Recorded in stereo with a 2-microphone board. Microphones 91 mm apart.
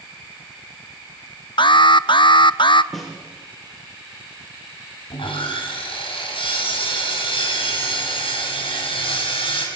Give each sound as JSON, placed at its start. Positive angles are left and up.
{"t": 1.6, "sound": "an alarm", "side_deg": 60, "distance_m": 0.6}
{"t": 2.9, "sound": "a snare drum", "side_deg": 0, "distance_m": 6.0}
{"t": 5.1, "sound": "sawing", "side_deg": 75, "distance_m": 5.5}